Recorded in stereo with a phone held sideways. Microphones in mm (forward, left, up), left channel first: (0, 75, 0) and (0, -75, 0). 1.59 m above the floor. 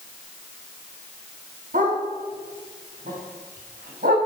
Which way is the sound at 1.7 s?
65° right (ahead or behind).